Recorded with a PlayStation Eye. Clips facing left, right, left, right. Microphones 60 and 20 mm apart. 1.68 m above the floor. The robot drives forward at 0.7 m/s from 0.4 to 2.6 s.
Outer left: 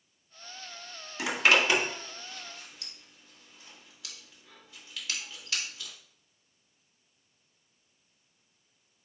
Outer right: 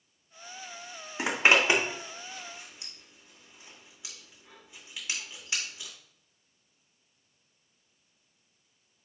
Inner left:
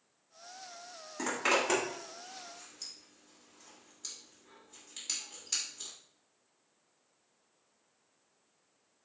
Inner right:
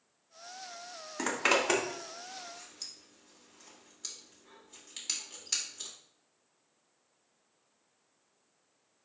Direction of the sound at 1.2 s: 25° right (ahead or behind).